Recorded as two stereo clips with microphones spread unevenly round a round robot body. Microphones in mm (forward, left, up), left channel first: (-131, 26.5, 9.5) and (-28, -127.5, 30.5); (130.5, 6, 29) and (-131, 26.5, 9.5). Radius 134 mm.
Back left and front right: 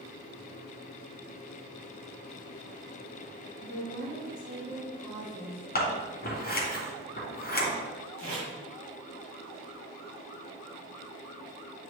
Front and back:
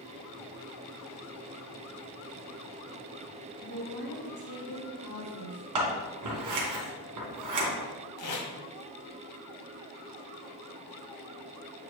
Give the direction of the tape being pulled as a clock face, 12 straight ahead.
1 o'clock.